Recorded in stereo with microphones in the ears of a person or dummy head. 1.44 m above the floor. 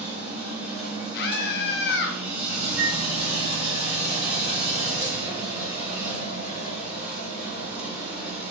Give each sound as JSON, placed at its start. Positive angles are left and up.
{"t": 0.0, "sound": "a machine running", "side_deg": -10, "distance_m": 1.2}
{"t": 1.1, "sound": "a scream", "side_deg": 55, "distance_m": 0.6}
{"t": 2.8, "sound": "a flute", "side_deg": 40, "distance_m": 1.6}